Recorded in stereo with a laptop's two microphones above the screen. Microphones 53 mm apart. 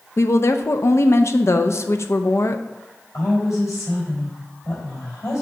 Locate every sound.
0.2 s a woman speaking: 60° left (ahead or behind), 0.6 m
3.1 s a woman speaking: 70° left (ahead or behind), 4 m